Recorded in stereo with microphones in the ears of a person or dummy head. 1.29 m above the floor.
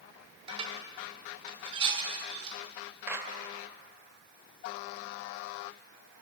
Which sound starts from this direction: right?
Dishes clattering, at 0.5 s.